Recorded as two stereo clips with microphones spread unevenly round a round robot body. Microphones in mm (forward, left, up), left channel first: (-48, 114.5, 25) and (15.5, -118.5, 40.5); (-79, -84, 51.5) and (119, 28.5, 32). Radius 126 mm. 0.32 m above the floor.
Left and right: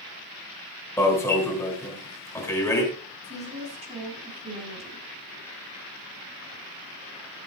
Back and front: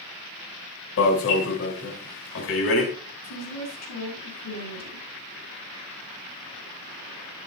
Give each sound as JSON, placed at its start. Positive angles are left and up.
{"t": 1.0, "sound": "an alarm", "azimuth_deg": 180, "distance_m": 3.5}
{"t": 3.2, "sound": "a woman speaking", "azimuth_deg": -140, "distance_m": 5.0}